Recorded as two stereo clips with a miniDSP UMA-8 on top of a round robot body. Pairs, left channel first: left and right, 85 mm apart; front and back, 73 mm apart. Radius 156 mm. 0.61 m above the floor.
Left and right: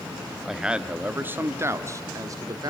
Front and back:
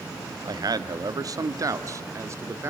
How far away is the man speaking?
About 1.9 m.